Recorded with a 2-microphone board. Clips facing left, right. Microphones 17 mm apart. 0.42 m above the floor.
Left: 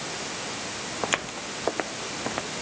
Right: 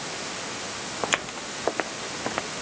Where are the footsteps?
10° right (ahead or behind); by 2.5 s 15° right (ahead or behind).